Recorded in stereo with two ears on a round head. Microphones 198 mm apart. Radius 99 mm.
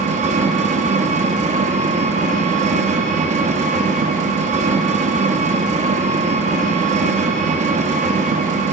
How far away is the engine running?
About 0.8 m.